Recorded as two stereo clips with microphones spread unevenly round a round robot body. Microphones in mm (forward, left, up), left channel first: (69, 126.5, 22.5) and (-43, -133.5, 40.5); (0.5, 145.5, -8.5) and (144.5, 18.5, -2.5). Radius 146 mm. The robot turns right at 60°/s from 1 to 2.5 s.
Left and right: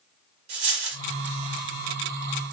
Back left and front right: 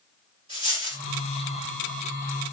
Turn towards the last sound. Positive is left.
turn(degrees=-25)